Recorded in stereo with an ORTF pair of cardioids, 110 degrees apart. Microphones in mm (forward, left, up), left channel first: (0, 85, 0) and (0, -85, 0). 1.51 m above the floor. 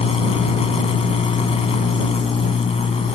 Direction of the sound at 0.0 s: 35° left.